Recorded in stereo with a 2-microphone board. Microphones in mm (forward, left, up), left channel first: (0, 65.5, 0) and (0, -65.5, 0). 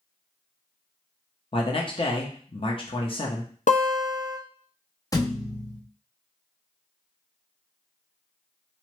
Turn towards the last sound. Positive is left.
turn(degrees=25)  # may be behind; listen again after turning